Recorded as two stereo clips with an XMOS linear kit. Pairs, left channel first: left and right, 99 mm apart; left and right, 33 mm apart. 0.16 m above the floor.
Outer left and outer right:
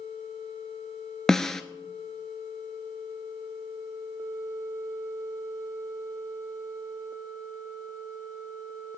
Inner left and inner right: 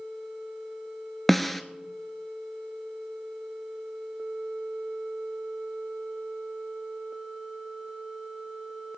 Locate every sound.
1.3 s a snare drum: 5° left (ahead or behind), 0.8 m